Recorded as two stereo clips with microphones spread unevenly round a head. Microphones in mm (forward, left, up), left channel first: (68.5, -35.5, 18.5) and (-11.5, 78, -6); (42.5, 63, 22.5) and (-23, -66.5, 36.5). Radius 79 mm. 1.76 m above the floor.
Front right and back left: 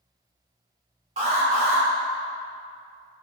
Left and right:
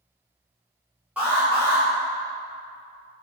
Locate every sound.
1.2 s an alarm: 170° left, 0.8 m